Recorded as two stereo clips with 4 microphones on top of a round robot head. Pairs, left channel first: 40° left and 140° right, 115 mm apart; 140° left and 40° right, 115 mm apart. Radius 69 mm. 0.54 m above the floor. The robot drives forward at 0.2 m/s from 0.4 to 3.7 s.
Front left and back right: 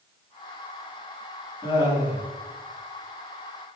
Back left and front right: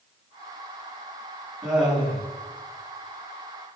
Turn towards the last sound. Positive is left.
turn(degrees=60)